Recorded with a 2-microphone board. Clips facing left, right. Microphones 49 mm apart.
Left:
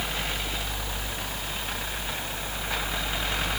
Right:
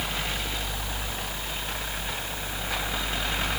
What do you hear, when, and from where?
Only background noise.